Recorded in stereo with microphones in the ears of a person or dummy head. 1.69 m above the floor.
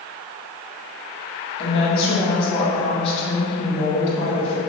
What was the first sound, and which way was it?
A woman speaking, 30° left (ahead or behind).